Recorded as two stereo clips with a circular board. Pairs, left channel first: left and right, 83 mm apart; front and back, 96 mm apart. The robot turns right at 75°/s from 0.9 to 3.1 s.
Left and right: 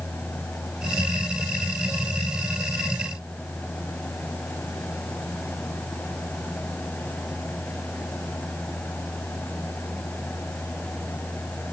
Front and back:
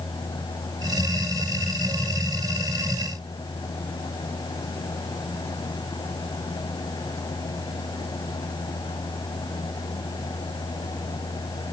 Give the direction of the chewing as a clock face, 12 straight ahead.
I don't hear chewing.